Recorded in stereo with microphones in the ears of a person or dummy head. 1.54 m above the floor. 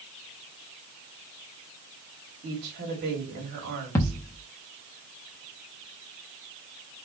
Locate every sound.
2.4 s a woman speaking: 55° right (ahead or behind), 3 m
4.0 s a thud: 15° left (ahead or behind), 0.9 m